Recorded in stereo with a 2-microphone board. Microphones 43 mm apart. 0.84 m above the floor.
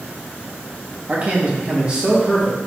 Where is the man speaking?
35° right (ahead or behind), 1.0 m; by 2.6 s 5° right (ahead or behind), 1.0 m.